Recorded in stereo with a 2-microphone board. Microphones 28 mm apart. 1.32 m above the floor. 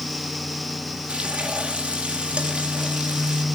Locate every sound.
1.1 s frying: 45° right (ahead or behind), 2.5 m